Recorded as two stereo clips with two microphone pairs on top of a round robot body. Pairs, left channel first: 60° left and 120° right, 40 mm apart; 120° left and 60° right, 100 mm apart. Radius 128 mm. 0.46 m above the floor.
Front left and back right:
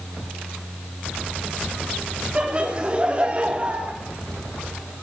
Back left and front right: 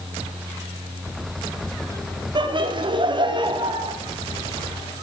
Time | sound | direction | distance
2.4 | laughter | 55° right | 1.0 m